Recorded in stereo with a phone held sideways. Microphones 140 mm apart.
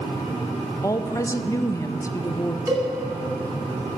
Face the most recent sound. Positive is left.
turn(degrees=-25)  # may be behind; listen again after turning